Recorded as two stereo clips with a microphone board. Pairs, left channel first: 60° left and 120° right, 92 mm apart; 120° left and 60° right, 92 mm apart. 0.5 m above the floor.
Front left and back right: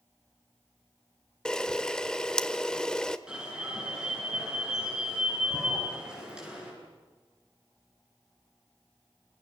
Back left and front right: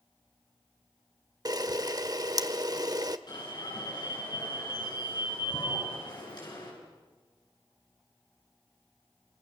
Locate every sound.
1.4 s a camera shutter: 20° right, 1.0 m
3.3 s an alarm: 160° left, 8.5 m